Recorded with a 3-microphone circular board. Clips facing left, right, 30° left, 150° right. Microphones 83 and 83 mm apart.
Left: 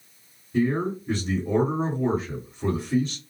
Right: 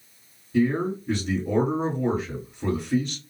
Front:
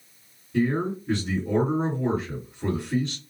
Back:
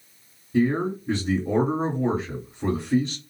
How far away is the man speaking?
About 2 m.